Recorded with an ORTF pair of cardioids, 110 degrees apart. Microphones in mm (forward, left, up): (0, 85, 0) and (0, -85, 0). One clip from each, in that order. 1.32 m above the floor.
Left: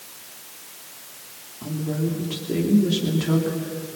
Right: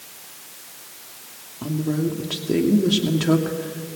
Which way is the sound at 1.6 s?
30° right.